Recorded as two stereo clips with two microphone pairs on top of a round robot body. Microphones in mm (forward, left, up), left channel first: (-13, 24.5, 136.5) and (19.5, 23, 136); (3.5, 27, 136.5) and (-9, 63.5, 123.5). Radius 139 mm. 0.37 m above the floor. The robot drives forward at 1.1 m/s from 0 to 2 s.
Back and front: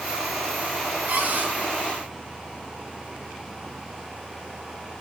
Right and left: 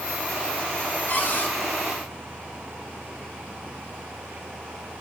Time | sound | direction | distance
1.1 | a cupboard door | 20° right | 2.5 m